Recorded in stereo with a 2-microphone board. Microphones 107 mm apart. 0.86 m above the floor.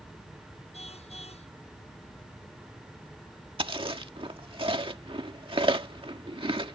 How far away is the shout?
I don't hear a shout.